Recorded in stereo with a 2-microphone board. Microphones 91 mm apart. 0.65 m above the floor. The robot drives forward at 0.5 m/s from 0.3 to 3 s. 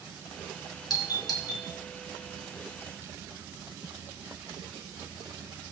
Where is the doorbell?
50° left (ahead or behind), 2 m; by 1.7 s 45° left (ahead or behind), 2.5 m.